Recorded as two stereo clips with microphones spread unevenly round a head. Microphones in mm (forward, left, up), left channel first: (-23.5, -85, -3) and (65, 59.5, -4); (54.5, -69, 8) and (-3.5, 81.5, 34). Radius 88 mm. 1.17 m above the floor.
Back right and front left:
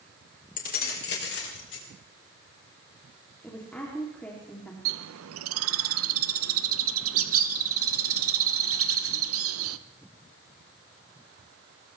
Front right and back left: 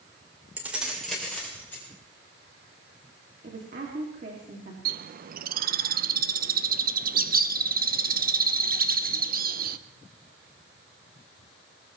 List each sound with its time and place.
0.6 s keys jangling: 170° right, 2.5 m; by 1.9 s 150° right, 4 m
3.4 s a woman speaking: 155° left, 2.5 m
4.8 s a bird: 75° left, 0.6 m